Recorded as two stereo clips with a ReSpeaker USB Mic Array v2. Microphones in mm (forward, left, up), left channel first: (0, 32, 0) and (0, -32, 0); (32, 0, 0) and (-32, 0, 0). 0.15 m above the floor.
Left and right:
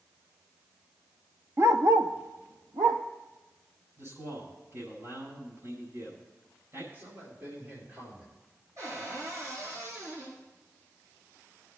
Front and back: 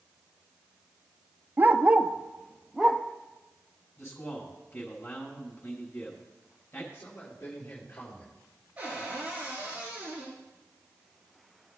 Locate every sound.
1.6 s a dog barking: 125° right, 0.7 m; by 3.0 s 85° right, 1.3 m
4.0 s a man speaking: 50° right, 6.5 m
6.9 s a man speaking: 40° right, 4.5 m
8.8 s a cupboard door: 115° right, 6 m